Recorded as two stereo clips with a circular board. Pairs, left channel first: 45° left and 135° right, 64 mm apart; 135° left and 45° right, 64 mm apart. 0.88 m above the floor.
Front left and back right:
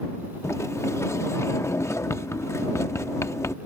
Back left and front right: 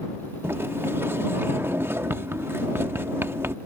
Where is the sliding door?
5° left.